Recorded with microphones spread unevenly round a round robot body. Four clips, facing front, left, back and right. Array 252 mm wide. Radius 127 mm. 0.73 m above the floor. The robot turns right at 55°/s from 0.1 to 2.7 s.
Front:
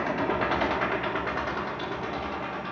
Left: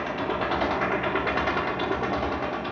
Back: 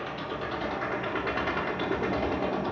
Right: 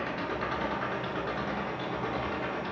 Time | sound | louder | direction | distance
0.0 | an engine running | left 5 dB, front 7 dB | 20° left | 1.2 m